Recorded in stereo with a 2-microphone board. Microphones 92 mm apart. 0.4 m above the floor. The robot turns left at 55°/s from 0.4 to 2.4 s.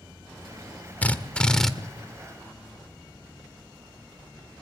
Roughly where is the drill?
Centre.